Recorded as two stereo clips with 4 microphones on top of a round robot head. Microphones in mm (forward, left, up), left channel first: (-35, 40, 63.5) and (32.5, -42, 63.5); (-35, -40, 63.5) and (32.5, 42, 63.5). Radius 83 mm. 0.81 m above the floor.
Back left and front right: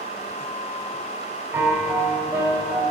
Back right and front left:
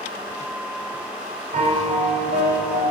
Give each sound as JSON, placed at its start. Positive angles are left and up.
{"t": 1.5, "sound": "a piano", "azimuth_deg": 20, "distance_m": 1.9}